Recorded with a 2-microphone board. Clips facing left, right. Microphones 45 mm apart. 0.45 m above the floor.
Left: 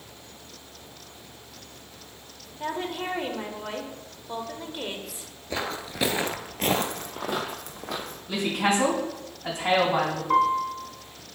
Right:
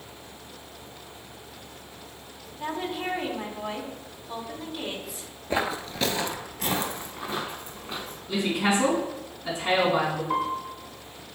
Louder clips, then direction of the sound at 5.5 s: Right 4 dB; 25° right (ahead or behind).